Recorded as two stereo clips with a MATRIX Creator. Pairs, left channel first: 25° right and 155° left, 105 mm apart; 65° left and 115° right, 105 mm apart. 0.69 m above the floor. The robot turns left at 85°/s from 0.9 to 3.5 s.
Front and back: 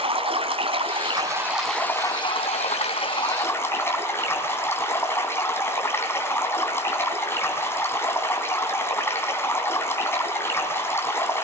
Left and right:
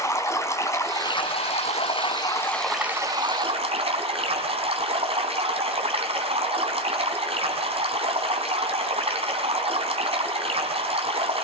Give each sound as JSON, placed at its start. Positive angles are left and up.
{"t": 0.0, "sound": "running water", "azimuth_deg": 130, "distance_m": 3.5}